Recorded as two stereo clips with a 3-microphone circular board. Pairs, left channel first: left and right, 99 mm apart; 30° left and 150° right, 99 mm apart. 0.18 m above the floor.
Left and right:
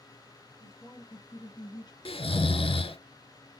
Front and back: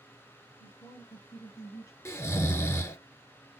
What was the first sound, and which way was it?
A woman speaking, 40° left.